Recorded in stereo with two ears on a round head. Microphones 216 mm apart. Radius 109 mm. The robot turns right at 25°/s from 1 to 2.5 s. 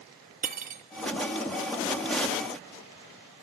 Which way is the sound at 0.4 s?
30° right (ahead or behind).